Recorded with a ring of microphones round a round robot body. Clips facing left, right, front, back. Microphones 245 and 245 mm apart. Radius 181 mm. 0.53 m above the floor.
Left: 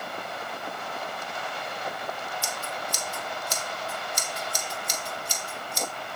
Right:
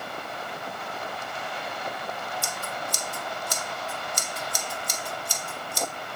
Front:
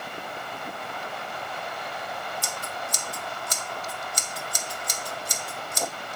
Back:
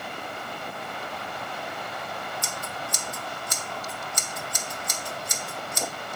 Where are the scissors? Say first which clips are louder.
Even, even; 55° right, 1.6 m.